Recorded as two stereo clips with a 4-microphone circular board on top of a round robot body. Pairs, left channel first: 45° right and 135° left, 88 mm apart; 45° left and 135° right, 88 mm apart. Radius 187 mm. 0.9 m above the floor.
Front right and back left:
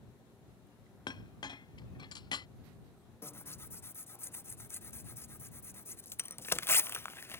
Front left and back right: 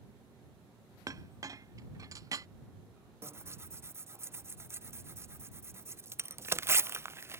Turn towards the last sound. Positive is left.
turn(degrees=-90)